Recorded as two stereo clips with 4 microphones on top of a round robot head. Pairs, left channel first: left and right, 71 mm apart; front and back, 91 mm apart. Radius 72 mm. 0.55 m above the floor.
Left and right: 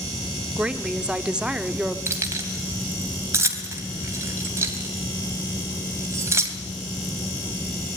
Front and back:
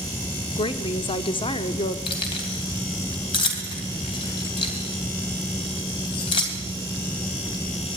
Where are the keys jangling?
40° right, 3 m.